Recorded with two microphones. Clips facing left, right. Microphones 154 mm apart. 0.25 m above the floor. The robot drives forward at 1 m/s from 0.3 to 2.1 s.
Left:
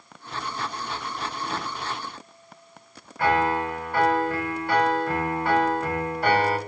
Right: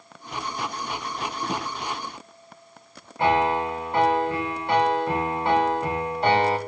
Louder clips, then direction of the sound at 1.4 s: Right 3 dB; 65° right (ahead or behind).